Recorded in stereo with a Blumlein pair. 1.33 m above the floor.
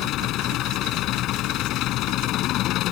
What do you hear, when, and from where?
0.0 s an engine running: 35° left